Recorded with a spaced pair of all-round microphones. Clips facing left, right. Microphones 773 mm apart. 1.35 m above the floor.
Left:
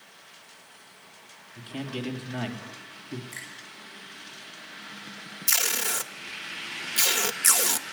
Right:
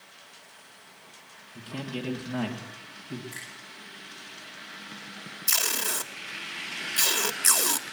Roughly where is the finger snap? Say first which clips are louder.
Even; right.